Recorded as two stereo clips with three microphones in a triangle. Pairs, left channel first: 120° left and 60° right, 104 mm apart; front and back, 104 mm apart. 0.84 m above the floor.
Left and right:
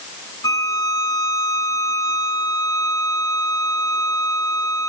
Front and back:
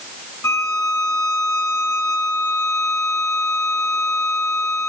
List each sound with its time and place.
0.4 s a violin: 65° left, 3.5 m